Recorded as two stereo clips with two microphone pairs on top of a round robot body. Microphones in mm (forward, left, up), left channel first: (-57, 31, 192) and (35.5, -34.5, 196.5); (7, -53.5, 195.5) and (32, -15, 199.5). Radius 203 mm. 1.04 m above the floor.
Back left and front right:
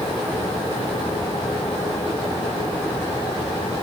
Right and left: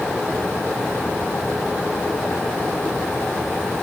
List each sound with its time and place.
Only background noise.